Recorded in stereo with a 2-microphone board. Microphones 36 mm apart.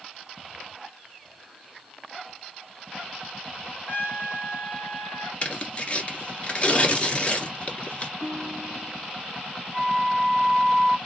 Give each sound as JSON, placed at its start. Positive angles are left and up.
{"t": 3.9, "sound": "a trumpet", "side_deg": 70, "distance_m": 1.4}
{"t": 5.4, "sound": "tearing paper", "side_deg": 35, "distance_m": 1.4}
{"t": 8.2, "sound": "a guitar", "side_deg": 0, "distance_m": 2.5}
{"t": 9.7, "sound": "a flute", "side_deg": -20, "distance_m": 0.8}